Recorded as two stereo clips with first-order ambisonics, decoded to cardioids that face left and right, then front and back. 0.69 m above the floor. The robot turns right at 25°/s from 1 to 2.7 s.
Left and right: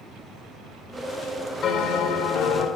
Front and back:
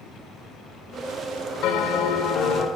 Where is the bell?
30° left, 1.9 m; by 2.7 s 60° left, 1.9 m.